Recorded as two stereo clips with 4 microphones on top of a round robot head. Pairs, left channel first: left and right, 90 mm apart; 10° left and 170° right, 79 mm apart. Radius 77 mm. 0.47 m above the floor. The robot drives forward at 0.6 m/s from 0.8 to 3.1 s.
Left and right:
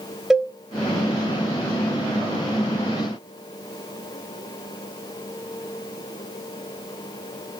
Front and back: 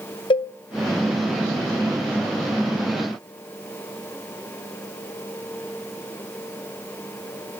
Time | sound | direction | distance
0.3 | a cowbell | 5° right | 0.7 m